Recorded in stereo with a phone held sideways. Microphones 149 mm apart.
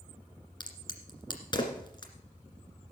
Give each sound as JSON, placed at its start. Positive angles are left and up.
{"t": 0.6, "sound": "a crack", "side_deg": 30, "distance_m": 2.0}